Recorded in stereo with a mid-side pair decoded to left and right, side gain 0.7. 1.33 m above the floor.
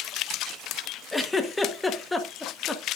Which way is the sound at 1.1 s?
10° left.